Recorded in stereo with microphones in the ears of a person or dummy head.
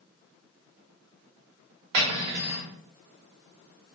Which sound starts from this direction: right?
Cutlery clinking, at 1.9 s.